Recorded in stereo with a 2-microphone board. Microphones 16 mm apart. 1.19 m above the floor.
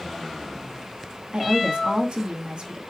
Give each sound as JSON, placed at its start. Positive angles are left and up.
{"t": 1.3, "sound": "a woman speaking", "side_deg": -70, "distance_m": 2.0}